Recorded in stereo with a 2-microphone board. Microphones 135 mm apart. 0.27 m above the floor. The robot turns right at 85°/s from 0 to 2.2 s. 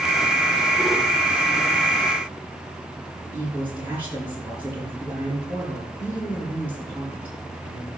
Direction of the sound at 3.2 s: 10° right (ahead or behind).